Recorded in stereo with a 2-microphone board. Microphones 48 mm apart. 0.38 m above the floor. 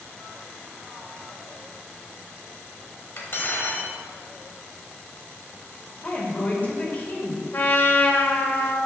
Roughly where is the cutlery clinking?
Left.